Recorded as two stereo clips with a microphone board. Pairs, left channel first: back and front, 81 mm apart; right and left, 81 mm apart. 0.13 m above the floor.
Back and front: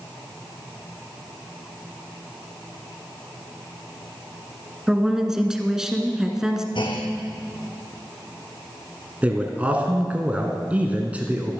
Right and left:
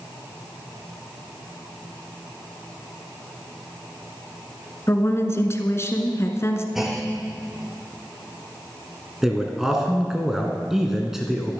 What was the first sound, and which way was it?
A woman speaking, 80° right.